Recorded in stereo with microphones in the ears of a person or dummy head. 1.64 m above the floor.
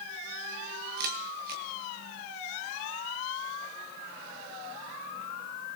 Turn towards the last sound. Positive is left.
turn(degrees=-55)  # may be behind; listen again after turning